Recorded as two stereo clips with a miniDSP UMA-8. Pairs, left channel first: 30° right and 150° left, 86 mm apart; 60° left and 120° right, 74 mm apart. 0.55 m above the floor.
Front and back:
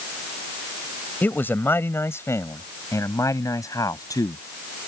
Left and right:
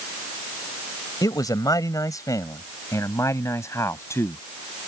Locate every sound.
1.2 s a man speaking: 35° left; by 4.4 s 10° left